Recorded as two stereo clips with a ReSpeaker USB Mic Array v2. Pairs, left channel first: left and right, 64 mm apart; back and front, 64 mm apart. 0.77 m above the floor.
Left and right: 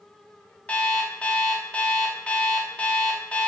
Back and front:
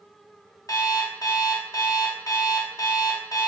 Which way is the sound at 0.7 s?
160° left.